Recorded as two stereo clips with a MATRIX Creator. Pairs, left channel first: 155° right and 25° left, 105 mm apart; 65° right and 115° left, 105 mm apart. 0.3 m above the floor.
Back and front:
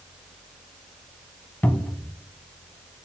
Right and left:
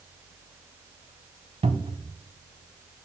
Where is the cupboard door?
125° left, 0.7 m.